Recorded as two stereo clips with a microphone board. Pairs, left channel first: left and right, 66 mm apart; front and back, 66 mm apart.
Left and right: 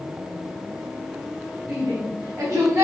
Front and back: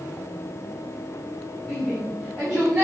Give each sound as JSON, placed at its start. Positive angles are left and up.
{"t": 1.7, "sound": "a shout", "azimuth_deg": -100, "distance_m": 2.0}